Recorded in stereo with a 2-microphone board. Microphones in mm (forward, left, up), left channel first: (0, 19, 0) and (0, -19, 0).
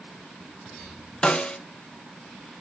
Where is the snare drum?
25° left (ahead or behind), 0.8 m.